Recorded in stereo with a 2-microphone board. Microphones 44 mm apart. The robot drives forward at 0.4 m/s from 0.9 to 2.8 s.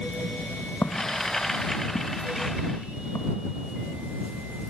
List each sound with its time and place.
0.8 s footsteps: 55° left (ahead or behind); by 4.1 s 80° left